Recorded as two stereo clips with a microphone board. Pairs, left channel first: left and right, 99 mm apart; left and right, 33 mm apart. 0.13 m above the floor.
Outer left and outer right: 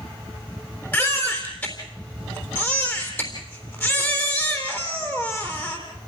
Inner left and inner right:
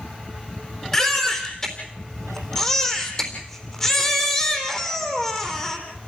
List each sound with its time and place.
0.9 s a baby crying: 20° left (ahead or behind), 3.5 m